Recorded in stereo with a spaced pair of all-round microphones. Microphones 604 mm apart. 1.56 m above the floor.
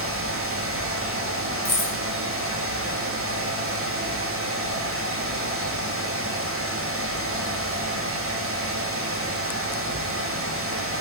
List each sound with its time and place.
0.0 s a fan: 20° right (ahead or behind), 0.7 m
1.6 s keys jangling: 60° left (ahead or behind), 1.8 m